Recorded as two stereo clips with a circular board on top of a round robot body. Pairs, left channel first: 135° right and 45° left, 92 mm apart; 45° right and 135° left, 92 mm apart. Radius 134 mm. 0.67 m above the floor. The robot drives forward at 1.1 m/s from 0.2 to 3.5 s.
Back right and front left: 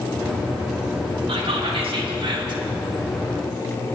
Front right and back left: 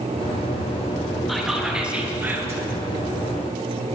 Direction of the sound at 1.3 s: 45° left.